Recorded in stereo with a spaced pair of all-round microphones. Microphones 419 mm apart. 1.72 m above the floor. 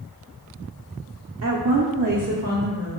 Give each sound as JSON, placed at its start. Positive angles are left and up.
{"t": 1.4, "sound": "a woman speaking", "side_deg": -40, "distance_m": 0.6}